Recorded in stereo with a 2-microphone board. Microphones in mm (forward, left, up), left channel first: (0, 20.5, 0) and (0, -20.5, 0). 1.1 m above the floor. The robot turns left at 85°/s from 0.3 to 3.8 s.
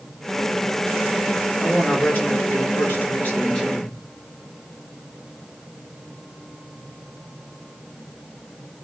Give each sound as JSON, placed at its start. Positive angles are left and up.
{"t": 1.6, "sound": "a woman speaking", "azimuth_deg": -170, "distance_m": 4.0}